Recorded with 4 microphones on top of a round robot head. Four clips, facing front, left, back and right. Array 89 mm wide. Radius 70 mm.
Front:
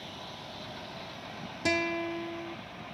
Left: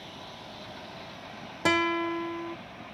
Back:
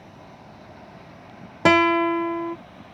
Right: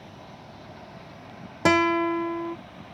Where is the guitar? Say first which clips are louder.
Right 5 dB, back 13 dB; 165° right.